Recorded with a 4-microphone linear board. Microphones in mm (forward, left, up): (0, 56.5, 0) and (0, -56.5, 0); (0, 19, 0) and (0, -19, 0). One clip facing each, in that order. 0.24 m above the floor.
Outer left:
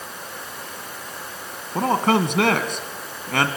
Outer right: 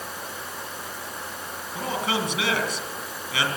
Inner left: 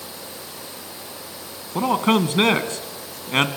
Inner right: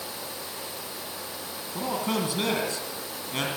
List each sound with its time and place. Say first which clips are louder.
1.8 s a man speaking: outer left 8 dB, inner left 10 dB; 55° left (ahead or behind), 2 m